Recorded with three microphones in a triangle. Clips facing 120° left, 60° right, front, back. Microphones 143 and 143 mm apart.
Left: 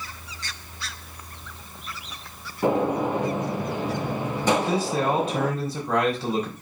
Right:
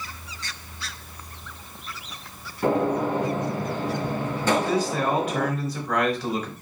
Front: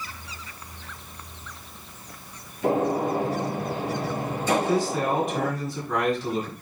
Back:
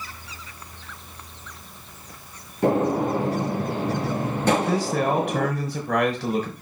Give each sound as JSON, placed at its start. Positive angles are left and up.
{"t": 2.6, "sound": "a gunshot", "azimuth_deg": -165, "distance_m": 3.0}
{"t": 4.5, "sound": "a man speaking", "azimuth_deg": 180, "distance_m": 3.5}